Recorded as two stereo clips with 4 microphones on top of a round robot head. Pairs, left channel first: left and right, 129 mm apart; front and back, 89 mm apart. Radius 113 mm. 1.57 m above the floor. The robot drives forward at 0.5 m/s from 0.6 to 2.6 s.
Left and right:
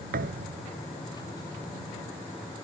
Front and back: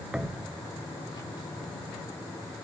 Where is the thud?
95° right.